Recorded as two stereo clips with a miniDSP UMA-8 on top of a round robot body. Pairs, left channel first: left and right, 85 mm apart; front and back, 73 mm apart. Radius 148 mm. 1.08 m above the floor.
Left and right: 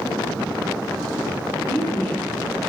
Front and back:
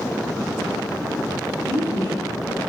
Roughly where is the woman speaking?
Behind.